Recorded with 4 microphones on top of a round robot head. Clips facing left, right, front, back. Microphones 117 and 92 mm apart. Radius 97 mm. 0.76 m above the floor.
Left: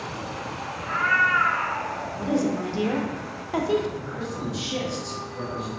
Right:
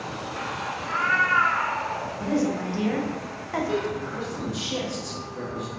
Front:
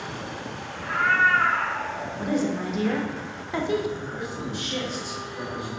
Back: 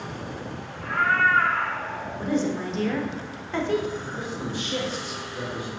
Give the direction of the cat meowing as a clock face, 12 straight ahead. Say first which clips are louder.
Left 2 dB, even; 12 o'clock.